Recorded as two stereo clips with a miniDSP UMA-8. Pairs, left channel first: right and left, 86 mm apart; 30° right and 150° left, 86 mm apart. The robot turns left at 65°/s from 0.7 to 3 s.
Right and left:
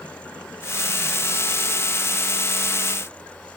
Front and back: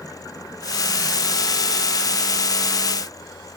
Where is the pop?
I don't hear a pop.